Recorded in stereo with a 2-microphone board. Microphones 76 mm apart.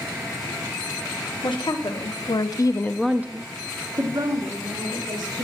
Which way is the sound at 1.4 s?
80° left.